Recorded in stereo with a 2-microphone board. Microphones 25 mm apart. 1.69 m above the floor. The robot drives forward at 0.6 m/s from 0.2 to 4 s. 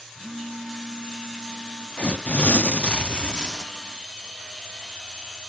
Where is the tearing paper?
50° left (ahead or behind), 0.6 m; by 3.7 s 30° left (ahead or behind), 0.9 m.